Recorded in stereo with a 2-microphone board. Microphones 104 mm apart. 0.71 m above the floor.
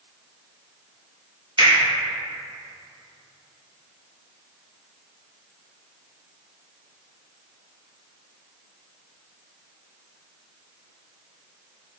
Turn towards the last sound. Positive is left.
turn(degrees=-55)  # may be behind; listen again after turning